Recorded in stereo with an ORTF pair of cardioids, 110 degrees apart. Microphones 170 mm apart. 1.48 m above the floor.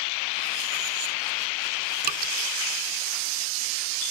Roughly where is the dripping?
Ahead right.